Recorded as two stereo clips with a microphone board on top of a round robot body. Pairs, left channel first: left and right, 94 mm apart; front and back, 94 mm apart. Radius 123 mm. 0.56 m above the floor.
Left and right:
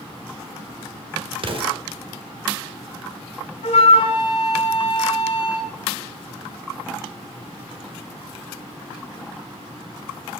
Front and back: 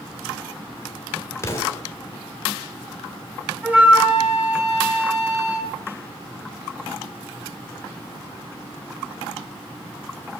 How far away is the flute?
About 3 m.